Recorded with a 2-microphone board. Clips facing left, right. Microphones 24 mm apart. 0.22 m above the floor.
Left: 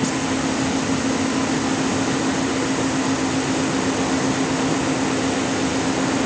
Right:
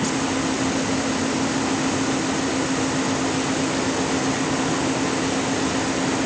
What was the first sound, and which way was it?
Only background noise.